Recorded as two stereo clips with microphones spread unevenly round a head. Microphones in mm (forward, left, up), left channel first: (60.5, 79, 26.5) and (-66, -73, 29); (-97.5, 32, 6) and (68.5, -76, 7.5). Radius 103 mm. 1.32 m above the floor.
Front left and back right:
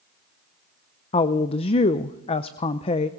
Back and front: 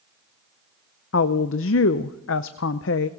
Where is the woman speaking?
115° left, 0.5 m.